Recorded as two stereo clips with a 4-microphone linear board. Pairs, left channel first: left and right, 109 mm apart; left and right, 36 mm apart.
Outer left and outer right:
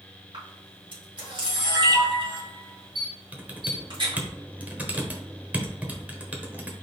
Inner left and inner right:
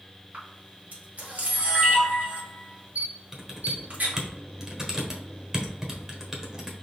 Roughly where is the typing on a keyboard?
Centre.